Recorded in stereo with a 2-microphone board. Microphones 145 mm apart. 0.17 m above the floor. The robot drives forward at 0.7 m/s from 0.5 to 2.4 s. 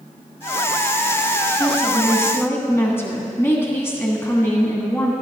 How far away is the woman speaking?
About 1.6 m.